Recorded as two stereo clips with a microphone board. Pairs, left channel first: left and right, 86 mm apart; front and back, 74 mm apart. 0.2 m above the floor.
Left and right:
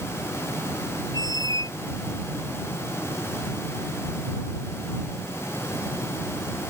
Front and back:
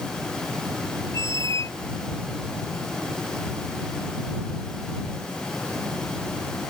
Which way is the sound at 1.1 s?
45° left.